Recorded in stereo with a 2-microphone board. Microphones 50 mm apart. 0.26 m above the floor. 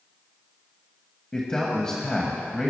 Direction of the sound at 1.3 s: 15° left (ahead or behind).